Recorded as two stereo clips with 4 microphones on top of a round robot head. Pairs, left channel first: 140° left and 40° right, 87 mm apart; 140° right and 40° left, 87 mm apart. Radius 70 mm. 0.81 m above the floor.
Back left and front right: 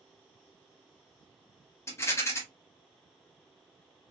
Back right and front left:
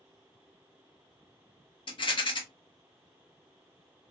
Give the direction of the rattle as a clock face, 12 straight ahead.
5 o'clock.